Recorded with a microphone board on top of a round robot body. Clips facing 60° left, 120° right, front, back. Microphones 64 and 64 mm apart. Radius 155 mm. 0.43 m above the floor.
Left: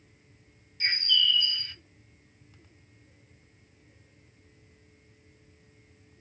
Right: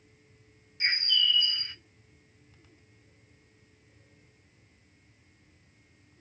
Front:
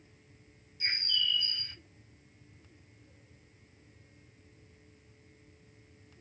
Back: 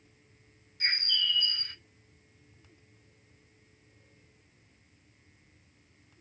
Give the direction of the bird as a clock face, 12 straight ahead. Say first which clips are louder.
Left 1 dB, back 2 dB; 6 o'clock.